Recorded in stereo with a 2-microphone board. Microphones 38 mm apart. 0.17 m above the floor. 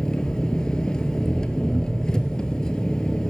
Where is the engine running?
20° left (ahead or behind), 0.9 m.